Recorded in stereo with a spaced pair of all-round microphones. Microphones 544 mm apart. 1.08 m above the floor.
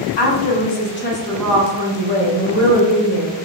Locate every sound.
0.2 s a woman speaking: 50° left (ahead or behind), 0.8 m; by 3.3 s 35° right (ahead or behind), 1.4 m